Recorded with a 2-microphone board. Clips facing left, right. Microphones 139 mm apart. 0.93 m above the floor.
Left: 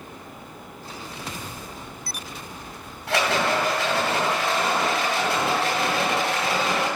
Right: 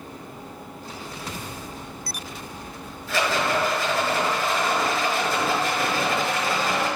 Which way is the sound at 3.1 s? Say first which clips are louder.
Left 1 dB; 80° left.